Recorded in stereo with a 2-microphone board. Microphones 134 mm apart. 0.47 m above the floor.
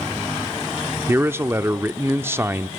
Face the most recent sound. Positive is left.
turn(degrees=-15)  # may be behind; listen again after turning